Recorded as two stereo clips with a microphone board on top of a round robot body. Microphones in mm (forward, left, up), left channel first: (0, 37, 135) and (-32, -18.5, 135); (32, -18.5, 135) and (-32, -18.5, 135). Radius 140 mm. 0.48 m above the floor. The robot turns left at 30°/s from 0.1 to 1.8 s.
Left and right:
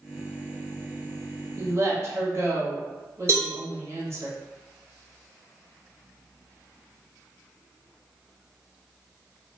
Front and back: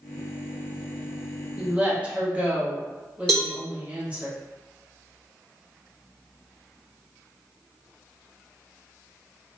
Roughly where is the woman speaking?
Right.